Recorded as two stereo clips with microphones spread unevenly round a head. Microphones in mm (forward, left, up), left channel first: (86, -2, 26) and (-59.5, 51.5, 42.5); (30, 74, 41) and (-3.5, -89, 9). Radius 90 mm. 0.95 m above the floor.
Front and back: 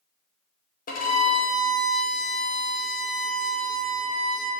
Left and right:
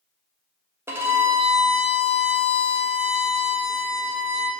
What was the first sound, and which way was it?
A violin, 30° right.